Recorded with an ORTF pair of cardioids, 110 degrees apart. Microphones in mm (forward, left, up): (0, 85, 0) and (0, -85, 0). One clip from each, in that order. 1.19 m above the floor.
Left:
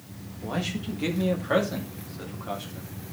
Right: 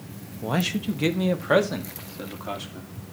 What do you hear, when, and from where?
0.4 s a man speaking: 40° right, 1.3 m; by 3.1 s 25° right, 3 m